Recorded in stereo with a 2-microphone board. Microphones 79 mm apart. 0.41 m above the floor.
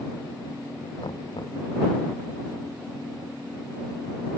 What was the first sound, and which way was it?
Knocking, 70° left (ahead or behind).